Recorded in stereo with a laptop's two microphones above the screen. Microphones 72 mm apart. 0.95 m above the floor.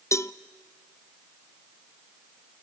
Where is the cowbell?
40° left (ahead or behind), 0.6 m.